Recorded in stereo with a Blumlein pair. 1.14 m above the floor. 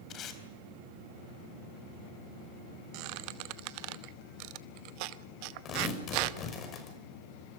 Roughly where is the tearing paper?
Ahead left.